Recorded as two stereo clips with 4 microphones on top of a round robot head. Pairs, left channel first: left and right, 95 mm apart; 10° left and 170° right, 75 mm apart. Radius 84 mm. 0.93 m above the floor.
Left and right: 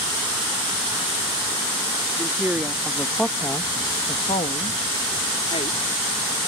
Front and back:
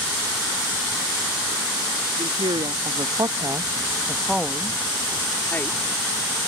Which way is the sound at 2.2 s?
160° right.